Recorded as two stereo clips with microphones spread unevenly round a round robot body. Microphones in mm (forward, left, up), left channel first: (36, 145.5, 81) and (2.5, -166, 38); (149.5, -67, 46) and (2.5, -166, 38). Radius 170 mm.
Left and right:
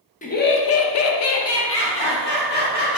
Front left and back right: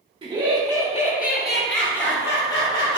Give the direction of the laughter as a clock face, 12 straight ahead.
7 o'clock.